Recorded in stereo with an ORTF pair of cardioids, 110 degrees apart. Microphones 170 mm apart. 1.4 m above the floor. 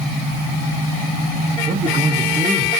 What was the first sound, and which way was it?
A man speaking, 30° right.